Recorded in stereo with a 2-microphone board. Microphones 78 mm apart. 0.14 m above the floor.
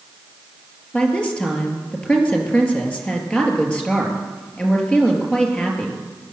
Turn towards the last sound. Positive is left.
turn(degrees=15)  # may be behind; listen again after turning